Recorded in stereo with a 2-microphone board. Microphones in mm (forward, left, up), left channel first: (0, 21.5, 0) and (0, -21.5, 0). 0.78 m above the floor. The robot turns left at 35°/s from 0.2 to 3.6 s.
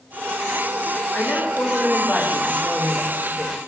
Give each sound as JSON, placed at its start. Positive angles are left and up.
{"t": 1.1, "sound": "a woman speaking", "azimuth_deg": 95, "distance_m": 0.6}